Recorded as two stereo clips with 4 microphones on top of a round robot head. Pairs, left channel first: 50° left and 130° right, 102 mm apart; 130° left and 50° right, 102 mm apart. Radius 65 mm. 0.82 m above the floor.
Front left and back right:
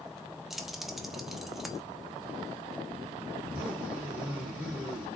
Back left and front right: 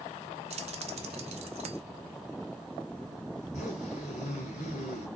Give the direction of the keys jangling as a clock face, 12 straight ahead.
1 o'clock.